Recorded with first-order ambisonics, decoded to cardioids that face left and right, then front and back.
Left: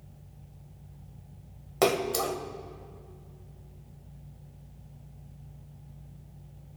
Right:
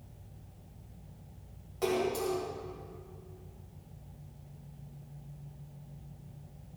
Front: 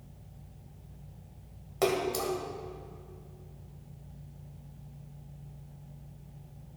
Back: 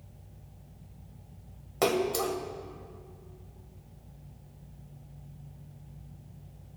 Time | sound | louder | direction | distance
1.8 | a splash | left 5 dB, back 2 dB | 100° left | 1.2 m